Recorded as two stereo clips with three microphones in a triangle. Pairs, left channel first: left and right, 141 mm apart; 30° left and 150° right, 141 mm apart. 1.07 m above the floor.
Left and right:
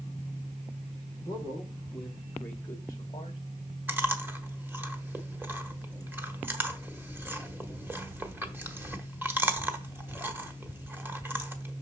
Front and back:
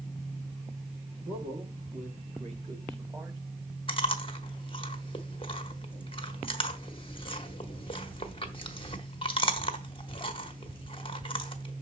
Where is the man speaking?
165° right, 3 m; by 3.4 s 140° left, 1.8 m.